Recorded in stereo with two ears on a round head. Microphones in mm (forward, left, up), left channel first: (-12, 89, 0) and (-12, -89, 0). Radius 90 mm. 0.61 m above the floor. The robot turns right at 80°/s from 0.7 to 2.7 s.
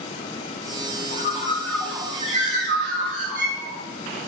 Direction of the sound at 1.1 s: 125° left.